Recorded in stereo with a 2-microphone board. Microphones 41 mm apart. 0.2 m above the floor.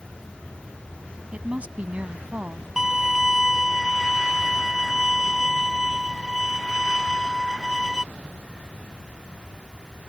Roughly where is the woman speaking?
Right.